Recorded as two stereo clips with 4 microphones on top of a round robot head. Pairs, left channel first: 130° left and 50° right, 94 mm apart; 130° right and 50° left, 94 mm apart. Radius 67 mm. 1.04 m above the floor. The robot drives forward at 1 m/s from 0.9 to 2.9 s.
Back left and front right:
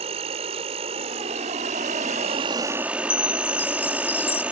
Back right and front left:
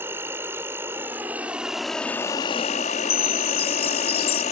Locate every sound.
0.0 s an insect: 20° right; by 4.5 s 125° right
3.1 s a chime: 160° right